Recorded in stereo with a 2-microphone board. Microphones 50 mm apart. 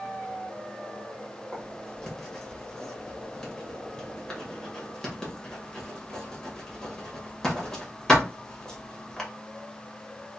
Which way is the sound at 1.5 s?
10° left (ahead or behind).